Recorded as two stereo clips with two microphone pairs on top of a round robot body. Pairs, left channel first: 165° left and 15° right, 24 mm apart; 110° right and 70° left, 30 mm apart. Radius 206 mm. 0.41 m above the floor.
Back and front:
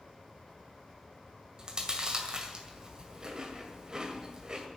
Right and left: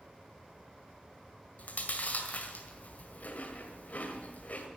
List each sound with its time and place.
1.6 s chewing: 80° right, 2 m